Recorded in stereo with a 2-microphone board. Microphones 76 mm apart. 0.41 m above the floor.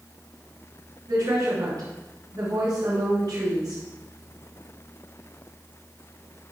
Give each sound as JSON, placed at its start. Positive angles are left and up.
{"t": 1.1, "sound": "a woman speaking", "side_deg": -65, "distance_m": 5.5}